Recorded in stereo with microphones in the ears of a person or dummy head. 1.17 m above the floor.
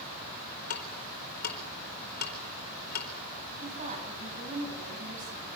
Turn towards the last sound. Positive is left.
turn(degrees=-45)  # may be behind; listen again after turning